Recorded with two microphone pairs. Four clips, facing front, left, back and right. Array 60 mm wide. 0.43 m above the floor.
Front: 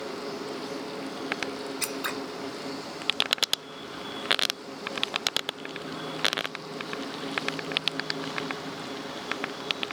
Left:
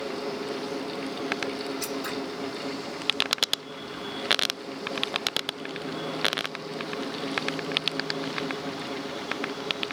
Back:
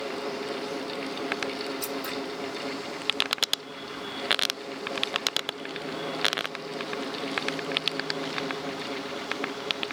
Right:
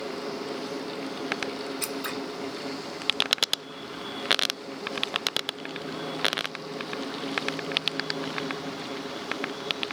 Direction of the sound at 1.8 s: 15° right.